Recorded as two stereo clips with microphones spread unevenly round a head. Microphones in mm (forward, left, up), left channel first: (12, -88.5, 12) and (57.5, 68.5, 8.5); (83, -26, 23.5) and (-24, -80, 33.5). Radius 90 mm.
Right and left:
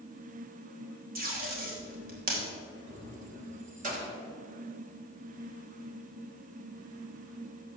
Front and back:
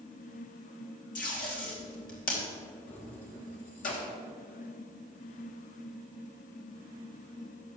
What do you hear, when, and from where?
1.1 s tape being pulled: 40° left, 3.5 m
2.9 s keys jangling: 30° left, 3 m